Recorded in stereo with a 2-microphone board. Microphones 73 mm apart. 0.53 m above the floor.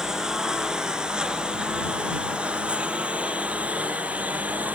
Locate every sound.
0.0 s a lawn mower: 10° right (ahead or behind); by 4.8 s 20° right (ahead or behind)